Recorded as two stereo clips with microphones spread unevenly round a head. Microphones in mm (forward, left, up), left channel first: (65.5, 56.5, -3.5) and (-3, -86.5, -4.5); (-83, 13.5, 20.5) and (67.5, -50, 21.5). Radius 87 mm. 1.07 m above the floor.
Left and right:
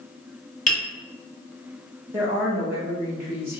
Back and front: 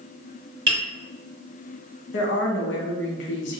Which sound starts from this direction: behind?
A woman speaking, at 2.1 s.